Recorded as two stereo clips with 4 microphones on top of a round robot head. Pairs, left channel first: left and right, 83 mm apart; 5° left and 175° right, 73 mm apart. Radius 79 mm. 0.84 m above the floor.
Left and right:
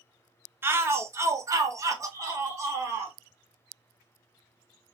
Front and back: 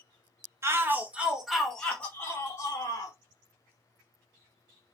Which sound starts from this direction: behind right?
A shout, at 0.6 s.